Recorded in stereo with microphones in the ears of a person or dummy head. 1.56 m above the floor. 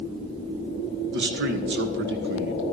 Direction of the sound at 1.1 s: 55° right (ahead or behind).